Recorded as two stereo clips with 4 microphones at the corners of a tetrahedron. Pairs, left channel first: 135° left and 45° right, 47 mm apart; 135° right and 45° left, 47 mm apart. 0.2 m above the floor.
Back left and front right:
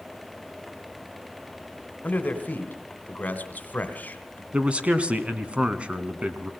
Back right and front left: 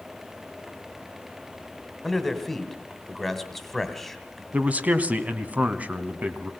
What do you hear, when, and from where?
2.0 s a man speaking: 140° left, 2.0 m
4.5 s a man speaking: 5° left, 1.5 m